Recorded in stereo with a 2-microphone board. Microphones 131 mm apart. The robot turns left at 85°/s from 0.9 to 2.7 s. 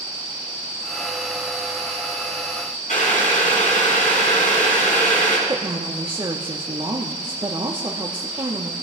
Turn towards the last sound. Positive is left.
turn(degrees=-35)  # may be behind; listen again after turning